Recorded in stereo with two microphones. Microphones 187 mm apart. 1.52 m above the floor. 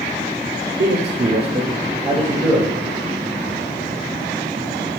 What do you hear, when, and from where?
0.8 s a man speaking: 85° right, 0.5 m; by 2.7 s 5° left (ahead or behind), 1.1 m